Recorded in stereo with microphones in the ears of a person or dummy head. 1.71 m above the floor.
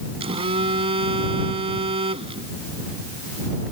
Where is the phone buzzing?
25° right (ahead or behind).